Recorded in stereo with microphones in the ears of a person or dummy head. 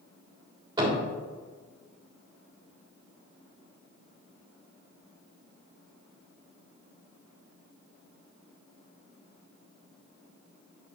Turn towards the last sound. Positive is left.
turn(degrees=-20)  # may be behind; listen again after turning